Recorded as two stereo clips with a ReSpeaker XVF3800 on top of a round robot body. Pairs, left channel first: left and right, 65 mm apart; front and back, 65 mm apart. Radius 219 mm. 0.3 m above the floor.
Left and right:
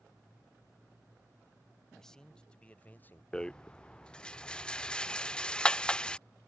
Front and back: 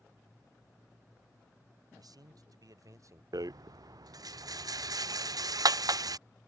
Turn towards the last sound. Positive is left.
turn(degrees=165)